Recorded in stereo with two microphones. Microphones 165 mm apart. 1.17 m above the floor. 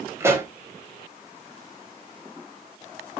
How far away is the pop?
About 1.1 m.